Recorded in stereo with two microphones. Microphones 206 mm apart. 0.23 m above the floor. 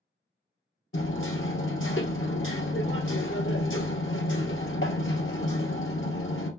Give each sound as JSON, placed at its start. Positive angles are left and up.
{"t": 0.9, "sound": "hammering", "side_deg": 85, "distance_m": 1.2}